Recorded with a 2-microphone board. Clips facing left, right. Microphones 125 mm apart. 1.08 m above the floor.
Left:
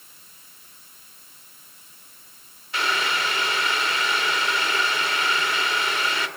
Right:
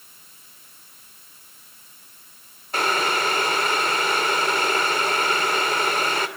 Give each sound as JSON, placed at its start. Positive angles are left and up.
{"t": 2.7, "sound": "boiling", "side_deg": -45, "distance_m": 3.0}